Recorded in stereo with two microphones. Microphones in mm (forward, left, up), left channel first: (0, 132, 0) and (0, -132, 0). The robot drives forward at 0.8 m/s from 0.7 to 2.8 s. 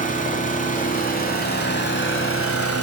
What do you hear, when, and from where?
0.0 s an engine running: 30° left (ahead or behind), 3 m; by 2.8 s 60° left (ahead or behind), 1.6 m